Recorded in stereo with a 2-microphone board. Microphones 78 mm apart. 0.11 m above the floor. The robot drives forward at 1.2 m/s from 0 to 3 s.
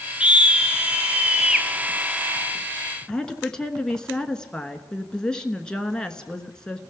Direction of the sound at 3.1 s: 10° left (ahead or behind).